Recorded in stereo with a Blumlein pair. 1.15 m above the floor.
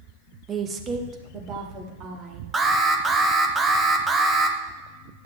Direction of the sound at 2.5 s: 15° right.